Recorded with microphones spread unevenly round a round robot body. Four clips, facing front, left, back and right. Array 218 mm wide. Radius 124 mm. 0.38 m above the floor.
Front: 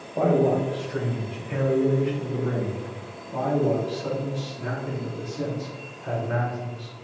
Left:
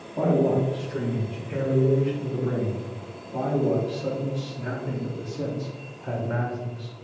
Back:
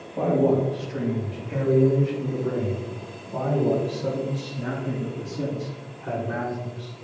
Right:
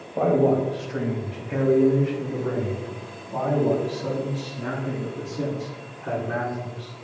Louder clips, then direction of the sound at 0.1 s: Right 2 dB, even; 55° right.